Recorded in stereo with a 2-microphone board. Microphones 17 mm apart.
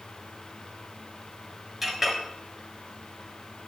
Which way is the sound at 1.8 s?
15° right (ahead or behind).